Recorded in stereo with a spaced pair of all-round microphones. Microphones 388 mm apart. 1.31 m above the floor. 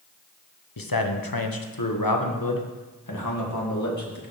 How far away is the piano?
No piano in this recording.